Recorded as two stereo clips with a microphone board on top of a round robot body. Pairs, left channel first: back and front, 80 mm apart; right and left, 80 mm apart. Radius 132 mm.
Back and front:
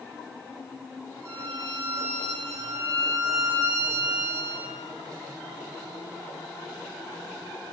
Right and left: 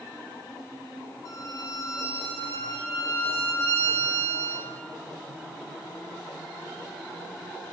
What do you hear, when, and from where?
1.2 s a violin: 50° right, 2.5 m